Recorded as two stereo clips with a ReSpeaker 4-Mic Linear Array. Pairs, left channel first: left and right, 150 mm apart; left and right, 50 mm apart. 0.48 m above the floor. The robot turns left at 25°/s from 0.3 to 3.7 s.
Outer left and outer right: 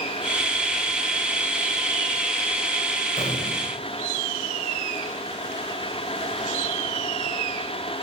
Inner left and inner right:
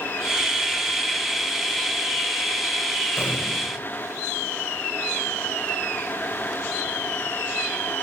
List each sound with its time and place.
3.2 s an explosion: 55° left (ahead or behind), 1.7 m; by 3.8 s 45° left (ahead or behind), 1.7 m